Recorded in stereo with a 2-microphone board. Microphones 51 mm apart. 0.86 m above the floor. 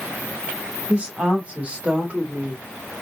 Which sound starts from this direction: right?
A woman speaking, at 0.9 s.